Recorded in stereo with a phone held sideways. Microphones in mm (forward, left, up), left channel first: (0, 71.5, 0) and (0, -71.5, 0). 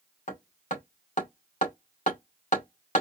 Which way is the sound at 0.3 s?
65° left (ahead or behind).